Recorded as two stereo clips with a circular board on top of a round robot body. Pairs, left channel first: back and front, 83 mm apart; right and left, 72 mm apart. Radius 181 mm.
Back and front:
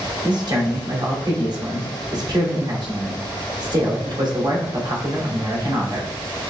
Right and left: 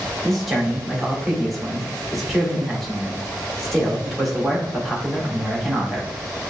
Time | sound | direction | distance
0.2 | a man speaking | straight ahead | 1.5 m